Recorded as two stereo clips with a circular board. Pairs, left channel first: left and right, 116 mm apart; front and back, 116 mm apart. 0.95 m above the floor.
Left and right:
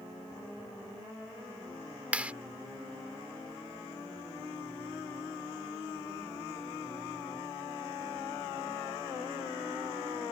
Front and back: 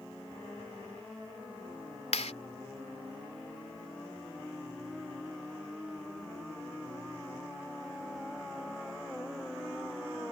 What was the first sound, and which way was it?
A clap, 10° right.